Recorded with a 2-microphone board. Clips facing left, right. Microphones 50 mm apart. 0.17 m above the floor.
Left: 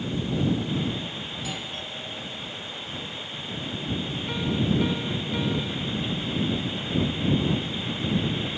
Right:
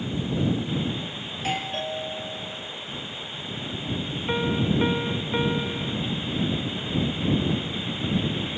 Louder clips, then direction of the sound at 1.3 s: Right 5 dB; 50° right (ahead or behind).